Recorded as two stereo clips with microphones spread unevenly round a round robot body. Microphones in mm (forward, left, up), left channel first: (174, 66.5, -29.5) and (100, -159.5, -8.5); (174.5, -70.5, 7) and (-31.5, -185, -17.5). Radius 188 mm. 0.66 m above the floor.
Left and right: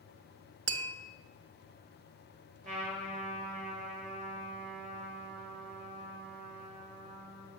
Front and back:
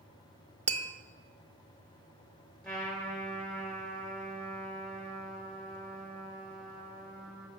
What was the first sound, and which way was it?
Tapping, 85° right.